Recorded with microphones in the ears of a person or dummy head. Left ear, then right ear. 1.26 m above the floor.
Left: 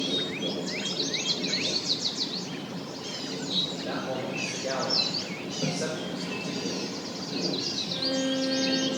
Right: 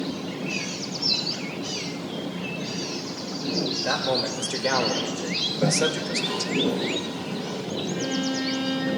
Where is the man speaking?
60° right (ahead or behind), 2.5 m; by 6.5 s 65° right (ahead or behind), 2 m.